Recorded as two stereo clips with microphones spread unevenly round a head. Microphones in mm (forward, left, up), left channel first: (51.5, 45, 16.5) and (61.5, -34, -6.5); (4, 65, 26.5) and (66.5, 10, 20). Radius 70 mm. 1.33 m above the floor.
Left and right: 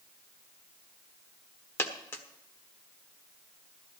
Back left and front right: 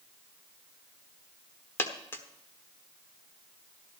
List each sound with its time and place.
1.8 s a dropped coin: 100° left, 1.2 m